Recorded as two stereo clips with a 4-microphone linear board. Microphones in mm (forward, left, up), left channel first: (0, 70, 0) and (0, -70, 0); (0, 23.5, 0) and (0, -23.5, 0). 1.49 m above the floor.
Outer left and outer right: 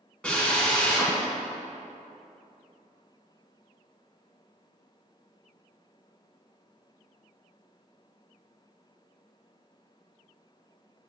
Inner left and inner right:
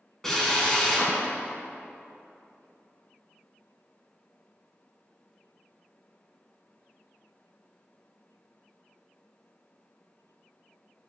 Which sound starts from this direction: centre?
A drill, at 0.2 s.